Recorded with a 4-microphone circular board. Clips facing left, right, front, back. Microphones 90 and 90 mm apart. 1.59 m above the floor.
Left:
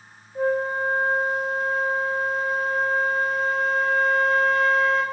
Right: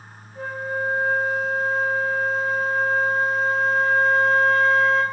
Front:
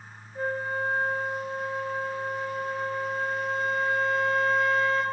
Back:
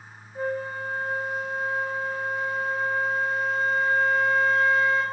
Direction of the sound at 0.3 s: 115° left.